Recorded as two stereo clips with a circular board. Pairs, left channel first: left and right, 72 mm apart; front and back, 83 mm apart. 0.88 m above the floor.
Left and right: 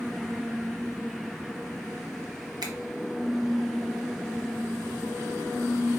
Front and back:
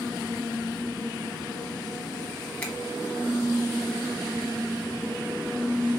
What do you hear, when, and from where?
2.6 s a finger snap: 70° right, 1.0 m